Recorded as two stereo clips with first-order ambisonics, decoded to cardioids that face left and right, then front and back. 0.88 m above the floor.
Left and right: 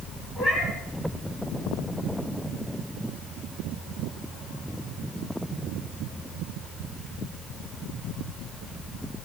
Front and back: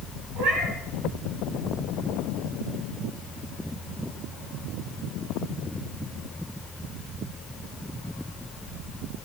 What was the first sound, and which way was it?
A cat meowing, 175° left.